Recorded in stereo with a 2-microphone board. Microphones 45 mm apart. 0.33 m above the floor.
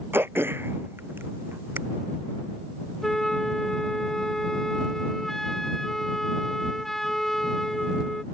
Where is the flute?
5° left (ahead or behind).